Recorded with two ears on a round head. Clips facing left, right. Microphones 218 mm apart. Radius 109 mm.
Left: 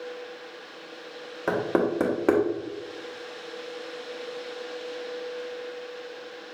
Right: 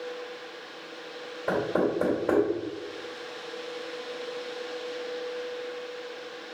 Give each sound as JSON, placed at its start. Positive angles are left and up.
{"t": 1.5, "sound": "knocking", "side_deg": 80, "distance_m": 0.9}